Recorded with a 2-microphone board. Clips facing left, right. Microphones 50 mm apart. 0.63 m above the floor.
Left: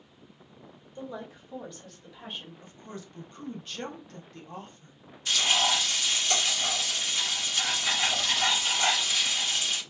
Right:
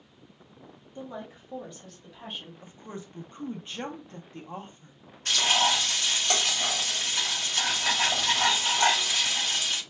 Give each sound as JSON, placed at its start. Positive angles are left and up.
{"t": 0.9, "sound": "a woman speaking", "side_deg": -30, "distance_m": 1.1}
{"t": 2.6, "sound": "a woman speaking", "side_deg": -20, "distance_m": 0.6}
{"t": 5.2, "sound": "frying", "side_deg": -50, "distance_m": 1.3}